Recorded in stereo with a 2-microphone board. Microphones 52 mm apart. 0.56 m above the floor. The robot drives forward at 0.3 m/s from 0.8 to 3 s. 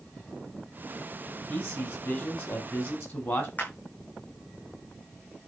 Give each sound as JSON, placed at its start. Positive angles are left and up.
{"t": 1.5, "sound": "a man speaking", "side_deg": 45, "distance_m": 4.0}
{"t": 3.6, "sound": "a clap", "side_deg": 35, "distance_m": 5.0}